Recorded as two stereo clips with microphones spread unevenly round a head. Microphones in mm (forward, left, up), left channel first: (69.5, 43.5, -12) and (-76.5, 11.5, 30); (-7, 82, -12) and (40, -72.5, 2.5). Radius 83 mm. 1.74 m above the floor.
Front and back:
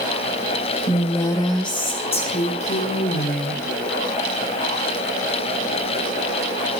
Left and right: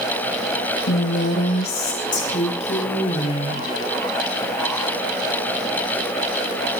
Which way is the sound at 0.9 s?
100° left.